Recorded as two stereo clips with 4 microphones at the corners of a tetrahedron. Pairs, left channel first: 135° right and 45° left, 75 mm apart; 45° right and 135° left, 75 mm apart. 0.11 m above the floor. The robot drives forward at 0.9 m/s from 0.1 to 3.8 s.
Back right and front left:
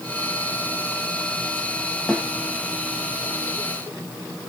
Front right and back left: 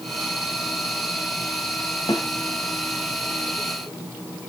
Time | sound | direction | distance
2.1 | a snare drum | 50° right | 3.5 m